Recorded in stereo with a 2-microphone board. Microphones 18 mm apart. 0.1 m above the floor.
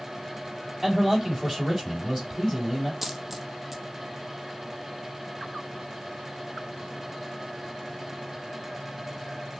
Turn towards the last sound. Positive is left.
turn(degrees=-15)  # may be behind; listen again after turning